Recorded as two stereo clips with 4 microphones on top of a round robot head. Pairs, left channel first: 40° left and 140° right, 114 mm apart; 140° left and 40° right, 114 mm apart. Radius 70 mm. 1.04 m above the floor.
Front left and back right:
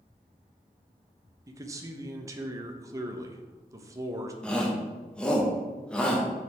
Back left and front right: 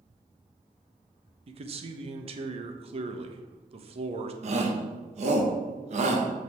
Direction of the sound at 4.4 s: 40° right.